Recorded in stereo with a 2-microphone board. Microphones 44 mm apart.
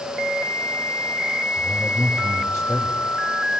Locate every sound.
1.6 s a man speaking: 85° left, 4 m